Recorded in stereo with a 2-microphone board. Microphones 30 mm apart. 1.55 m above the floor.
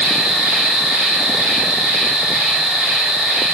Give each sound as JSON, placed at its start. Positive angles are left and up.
{"t": 0.0, "sound": "an insect", "side_deg": -60, "distance_m": 1.9}